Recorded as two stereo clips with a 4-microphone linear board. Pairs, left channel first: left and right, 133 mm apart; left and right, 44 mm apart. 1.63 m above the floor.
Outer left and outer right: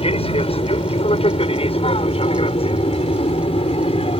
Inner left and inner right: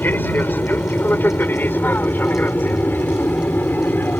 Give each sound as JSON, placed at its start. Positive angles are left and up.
{"t": 0.0, "sound": "an aircraft", "side_deg": 45}